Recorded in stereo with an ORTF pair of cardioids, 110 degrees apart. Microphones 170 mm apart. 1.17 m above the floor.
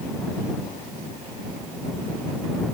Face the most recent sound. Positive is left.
No sound to turn to.